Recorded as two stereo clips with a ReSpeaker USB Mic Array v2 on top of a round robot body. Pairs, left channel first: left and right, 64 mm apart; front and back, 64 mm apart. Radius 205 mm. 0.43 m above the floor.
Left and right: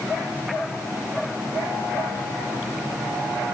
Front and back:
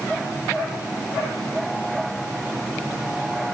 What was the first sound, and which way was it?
Only background noise.